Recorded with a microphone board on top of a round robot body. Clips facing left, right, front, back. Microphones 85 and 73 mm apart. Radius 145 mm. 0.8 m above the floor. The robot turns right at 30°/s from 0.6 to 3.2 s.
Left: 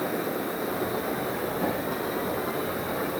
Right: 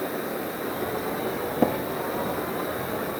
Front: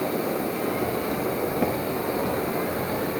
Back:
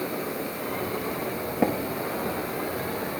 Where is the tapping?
115° right, 0.7 m; by 1.8 s 110° right, 0.7 m.